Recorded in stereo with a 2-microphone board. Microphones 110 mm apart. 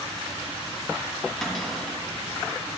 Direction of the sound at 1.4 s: 5° left (ahead or behind).